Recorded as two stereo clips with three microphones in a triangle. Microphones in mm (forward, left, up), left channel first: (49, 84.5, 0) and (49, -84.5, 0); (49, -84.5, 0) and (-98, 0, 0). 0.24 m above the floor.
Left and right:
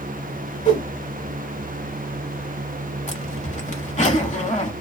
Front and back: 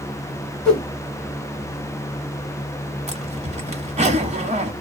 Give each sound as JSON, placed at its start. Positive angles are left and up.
{"t": 0.7, "sound": "a whoosh", "azimuth_deg": 55, "distance_m": 1.4}
{"t": 3.1, "sound": "a zipper", "azimuth_deg": 120, "distance_m": 1.2}